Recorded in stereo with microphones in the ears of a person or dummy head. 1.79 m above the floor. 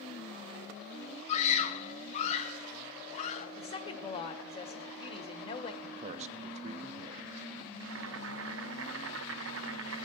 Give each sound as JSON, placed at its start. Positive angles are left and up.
{"t": 1.3, "sound": "a scream", "side_deg": 40, "distance_m": 1.0}
{"t": 3.6, "sound": "a woman speaking", "side_deg": 30, "distance_m": 1.5}
{"t": 5.8, "sound": "a man speaking", "side_deg": -40, "distance_m": 0.9}
{"t": 7.8, "sound": "boiling", "side_deg": -80, "distance_m": 0.9}